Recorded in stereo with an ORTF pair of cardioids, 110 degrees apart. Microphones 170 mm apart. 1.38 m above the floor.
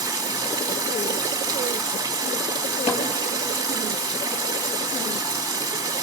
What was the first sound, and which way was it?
Running water, 20° right.